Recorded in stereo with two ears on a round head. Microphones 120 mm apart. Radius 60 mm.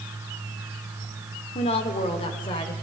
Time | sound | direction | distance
1.6 | a woman speaking | 50° left (ahead or behind) | 2.5 m